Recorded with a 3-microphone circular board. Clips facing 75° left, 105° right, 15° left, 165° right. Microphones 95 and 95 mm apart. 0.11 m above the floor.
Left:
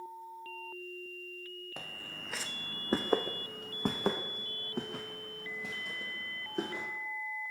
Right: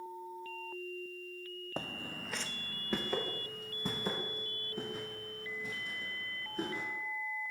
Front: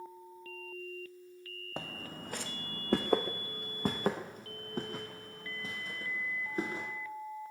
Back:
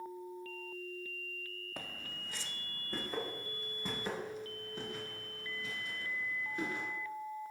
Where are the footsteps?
45° right, 0.6 m; by 6.9 s 65° left, 2.5 m.